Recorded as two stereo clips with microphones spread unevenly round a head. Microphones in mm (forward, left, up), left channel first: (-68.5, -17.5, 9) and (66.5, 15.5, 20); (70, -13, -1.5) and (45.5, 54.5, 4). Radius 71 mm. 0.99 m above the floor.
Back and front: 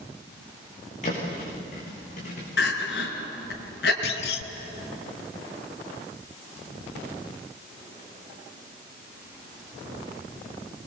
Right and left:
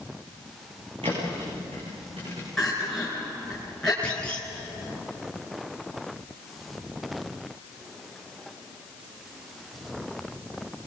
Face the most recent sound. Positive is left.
turn(degrees=-150)